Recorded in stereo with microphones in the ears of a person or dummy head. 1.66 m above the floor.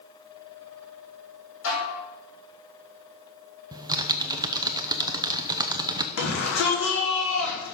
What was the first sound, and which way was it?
Dishes clattering, 75° left (ahead or behind).